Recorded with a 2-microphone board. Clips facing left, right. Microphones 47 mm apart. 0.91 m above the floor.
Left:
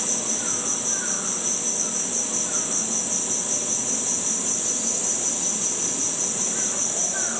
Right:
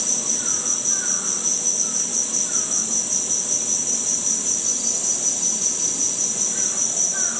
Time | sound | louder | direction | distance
0.0 | an insect | left 2 dB | 35° left (ahead or behind) | 1.0 m